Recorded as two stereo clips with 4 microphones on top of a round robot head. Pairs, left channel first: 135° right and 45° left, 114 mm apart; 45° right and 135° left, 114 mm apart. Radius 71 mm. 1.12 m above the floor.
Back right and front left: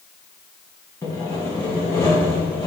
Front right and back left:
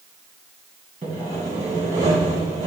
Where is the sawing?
165° left, 2.5 m.